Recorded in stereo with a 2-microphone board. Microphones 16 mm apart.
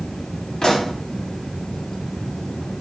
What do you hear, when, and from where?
0.6 s a pop: 65° left (ahead or behind), 2 m